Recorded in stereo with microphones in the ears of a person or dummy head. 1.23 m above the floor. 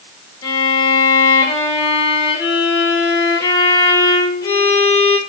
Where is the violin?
20° left (ahead or behind), 0.7 m.